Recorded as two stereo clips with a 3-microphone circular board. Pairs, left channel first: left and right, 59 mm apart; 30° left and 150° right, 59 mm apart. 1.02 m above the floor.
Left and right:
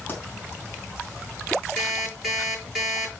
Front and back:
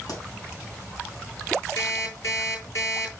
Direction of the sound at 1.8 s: 5° right.